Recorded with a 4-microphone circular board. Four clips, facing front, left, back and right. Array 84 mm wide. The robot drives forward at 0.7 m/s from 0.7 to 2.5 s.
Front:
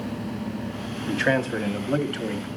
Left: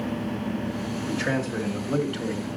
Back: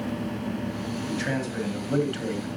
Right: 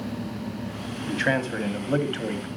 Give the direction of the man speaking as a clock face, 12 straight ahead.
1 o'clock.